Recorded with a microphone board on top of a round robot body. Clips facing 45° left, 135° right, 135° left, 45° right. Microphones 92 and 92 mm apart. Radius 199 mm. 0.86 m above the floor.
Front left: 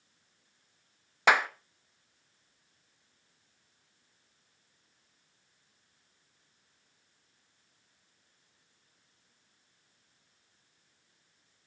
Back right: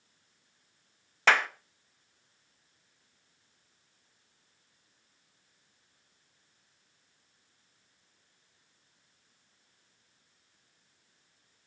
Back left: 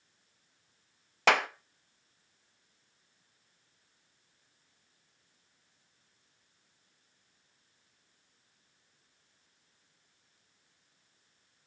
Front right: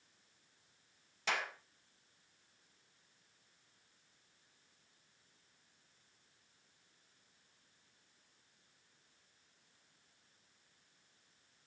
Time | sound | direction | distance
1.3 | a clap | 120° left | 0.7 m